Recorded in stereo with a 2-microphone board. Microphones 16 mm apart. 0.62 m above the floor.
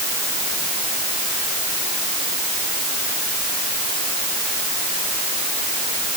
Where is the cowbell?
No cowbell in this recording.